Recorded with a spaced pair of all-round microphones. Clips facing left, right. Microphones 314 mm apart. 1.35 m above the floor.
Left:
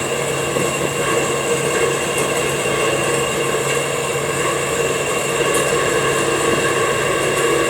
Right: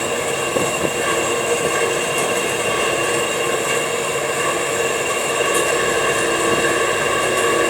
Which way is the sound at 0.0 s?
65° left (ahead or behind).